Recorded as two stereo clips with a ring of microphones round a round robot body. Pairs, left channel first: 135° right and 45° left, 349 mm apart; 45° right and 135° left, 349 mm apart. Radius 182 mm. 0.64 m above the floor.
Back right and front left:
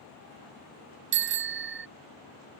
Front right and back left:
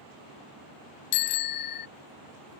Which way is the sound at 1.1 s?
15° right.